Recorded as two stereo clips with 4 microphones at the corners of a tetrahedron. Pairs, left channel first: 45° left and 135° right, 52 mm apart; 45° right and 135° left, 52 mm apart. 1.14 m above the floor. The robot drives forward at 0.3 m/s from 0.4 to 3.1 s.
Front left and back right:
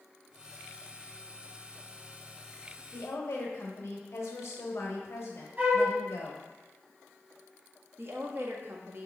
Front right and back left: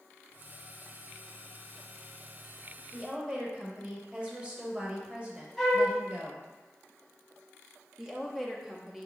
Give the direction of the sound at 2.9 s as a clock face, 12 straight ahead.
10 o'clock.